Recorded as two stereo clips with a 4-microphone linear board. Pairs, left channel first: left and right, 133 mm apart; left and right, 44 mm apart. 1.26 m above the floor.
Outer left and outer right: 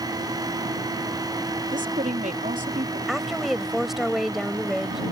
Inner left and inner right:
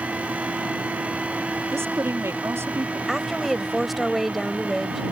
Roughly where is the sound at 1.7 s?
Right.